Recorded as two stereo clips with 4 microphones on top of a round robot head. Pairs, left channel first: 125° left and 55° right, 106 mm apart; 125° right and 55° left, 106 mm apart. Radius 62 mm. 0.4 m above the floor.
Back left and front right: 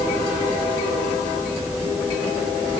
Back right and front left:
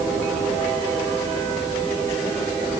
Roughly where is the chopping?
I don't hear chopping.